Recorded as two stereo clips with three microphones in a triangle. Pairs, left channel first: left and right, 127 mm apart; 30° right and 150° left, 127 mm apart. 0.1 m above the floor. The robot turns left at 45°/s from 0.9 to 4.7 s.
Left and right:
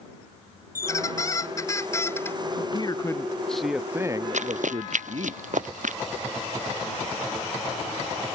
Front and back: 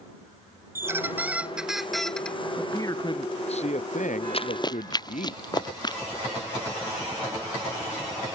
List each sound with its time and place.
0.8 s a squeak: 105° left; by 2.4 s 40° left
2.6 s a man speaking: 45° left; by 5.3 s 50° right
4.3 s running footsteps: 70° right; by 6.0 s 85° right